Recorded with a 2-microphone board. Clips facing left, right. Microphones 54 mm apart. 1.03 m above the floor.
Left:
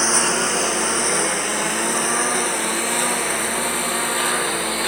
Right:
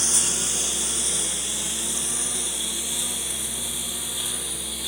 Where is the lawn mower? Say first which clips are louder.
Left 12 dB; 50° left (ahead or behind); by 4.9 s 60° left (ahead or behind).